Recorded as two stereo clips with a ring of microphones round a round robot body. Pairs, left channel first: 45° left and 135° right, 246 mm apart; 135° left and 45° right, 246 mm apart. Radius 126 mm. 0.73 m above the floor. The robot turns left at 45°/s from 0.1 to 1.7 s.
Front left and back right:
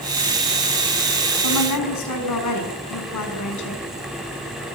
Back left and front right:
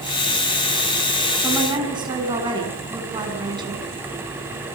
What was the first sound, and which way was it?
A woman speaking, 40° left.